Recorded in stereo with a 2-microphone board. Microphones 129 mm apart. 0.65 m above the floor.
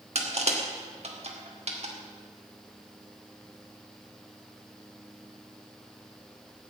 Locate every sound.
0.1 s crushing: 55° right (ahead or behind), 2.5 m